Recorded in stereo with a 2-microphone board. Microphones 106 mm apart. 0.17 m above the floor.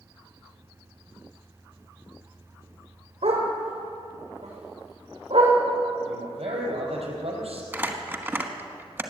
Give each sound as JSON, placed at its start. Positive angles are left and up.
{"t": 3.2, "sound": "a dog barking", "side_deg": -80, "distance_m": 3.5}
{"t": 6.0, "sound": "a man speaking", "side_deg": -75, "distance_m": 4.5}
{"t": 7.7, "sound": "crumpling", "side_deg": -20, "distance_m": 1.3}